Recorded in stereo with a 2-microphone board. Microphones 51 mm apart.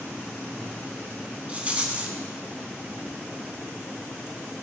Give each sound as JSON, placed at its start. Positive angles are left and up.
{"t": 1.5, "sound": "a rattle", "side_deg": -30, "distance_m": 1.2}